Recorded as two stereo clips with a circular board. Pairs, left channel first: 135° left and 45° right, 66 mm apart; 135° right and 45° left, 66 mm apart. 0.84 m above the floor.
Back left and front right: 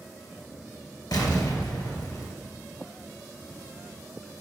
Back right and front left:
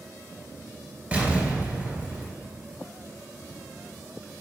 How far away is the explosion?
About 2.5 m.